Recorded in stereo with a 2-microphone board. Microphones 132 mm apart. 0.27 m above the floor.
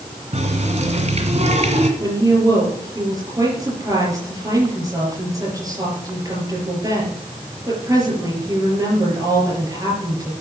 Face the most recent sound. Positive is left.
turn(degrees=-25)  # may be behind; listen again after turning